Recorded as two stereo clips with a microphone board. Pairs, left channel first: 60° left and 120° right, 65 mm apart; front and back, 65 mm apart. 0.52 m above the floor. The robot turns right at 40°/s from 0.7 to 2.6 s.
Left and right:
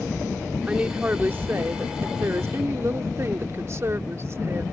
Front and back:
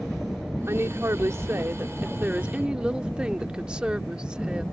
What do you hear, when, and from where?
0.7 s a woman speaking: 175° left; by 4.6 s 110° right